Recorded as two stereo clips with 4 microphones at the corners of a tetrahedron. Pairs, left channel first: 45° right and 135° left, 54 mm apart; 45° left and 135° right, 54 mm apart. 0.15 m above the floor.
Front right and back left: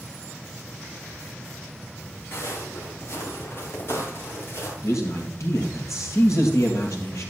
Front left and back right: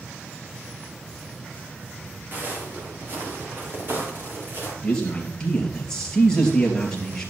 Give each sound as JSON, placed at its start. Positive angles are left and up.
{"t": 2.3, "sound": "footsteps", "azimuth_deg": -80, "distance_m": 4.0}
{"t": 4.8, "sound": "a man speaking", "azimuth_deg": -25, "distance_m": 3.0}